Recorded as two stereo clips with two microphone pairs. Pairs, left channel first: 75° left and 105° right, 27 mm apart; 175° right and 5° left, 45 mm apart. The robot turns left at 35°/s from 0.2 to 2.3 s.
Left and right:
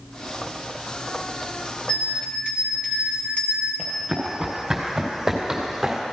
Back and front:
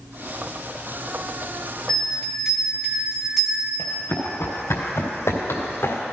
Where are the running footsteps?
175° right, 4 m; by 6.0 s 175° left, 3 m.